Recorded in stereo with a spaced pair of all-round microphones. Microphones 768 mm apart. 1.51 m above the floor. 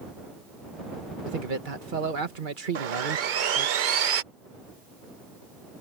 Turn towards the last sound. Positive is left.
turn(degrees=-75)  # may be behind; listen again after turning